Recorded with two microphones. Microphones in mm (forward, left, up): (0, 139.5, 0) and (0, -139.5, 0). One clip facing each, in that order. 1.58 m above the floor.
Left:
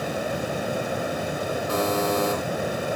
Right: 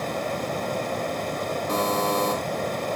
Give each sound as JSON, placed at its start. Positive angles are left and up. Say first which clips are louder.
{"t": 1.7, "sound": "a buzzer", "louder": "left 1 dB", "side_deg": -20, "distance_m": 9.5}